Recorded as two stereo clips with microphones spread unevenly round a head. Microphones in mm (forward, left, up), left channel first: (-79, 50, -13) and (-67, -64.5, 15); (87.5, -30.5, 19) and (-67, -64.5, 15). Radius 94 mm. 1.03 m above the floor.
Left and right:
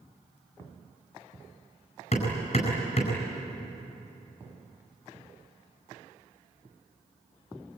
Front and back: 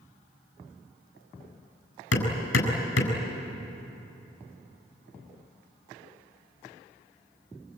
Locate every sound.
2.1 s hammering: 35° left, 4.5 m